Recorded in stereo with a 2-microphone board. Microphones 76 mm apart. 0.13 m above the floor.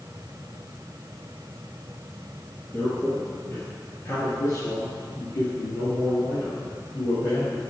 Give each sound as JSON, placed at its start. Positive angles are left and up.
{"t": 2.7, "sound": "a man speaking", "side_deg": 25, "distance_m": 2.5}